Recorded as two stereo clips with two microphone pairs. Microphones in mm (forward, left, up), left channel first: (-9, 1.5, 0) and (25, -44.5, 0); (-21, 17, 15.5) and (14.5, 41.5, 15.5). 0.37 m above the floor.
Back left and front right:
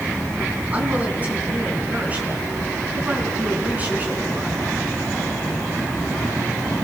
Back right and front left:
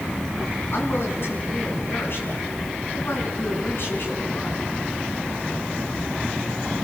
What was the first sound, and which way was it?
A woman speaking, 115° right.